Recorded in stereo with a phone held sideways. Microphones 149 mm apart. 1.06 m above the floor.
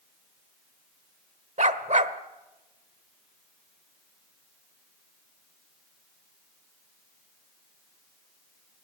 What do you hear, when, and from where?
1.6 s a dog barking: 55° right (ahead or behind), 1.2 m